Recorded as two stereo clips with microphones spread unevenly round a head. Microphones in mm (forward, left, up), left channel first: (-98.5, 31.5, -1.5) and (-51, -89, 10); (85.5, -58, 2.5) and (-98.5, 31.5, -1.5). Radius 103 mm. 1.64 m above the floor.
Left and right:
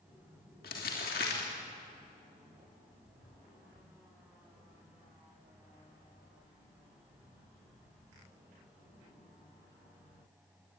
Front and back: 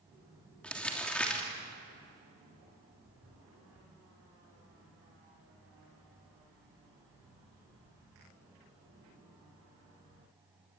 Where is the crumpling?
60° left, 3 m.